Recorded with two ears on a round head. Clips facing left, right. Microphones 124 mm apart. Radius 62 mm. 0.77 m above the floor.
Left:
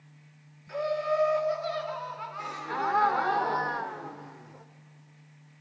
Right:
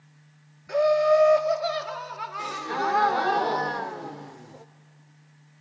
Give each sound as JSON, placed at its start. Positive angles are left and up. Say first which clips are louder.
{"t": 0.7, "sound": "laughter", "louder": "right 9 dB", "side_deg": -60, "distance_m": 1.9}
{"t": 2.4, "sound": "a gasp", "louder": "right 4 dB", "side_deg": -30, "distance_m": 0.5}